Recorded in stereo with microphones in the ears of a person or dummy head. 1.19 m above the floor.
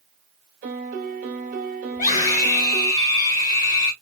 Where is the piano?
45° right (ahead or behind), 1.3 m.